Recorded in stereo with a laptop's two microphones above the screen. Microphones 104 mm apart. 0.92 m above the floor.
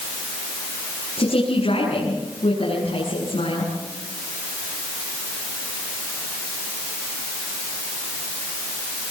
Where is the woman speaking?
80° left, 9 m.